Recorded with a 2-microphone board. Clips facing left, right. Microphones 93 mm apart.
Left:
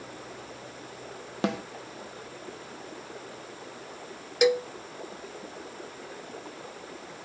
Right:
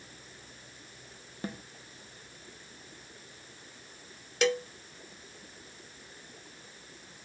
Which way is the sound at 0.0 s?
90° left.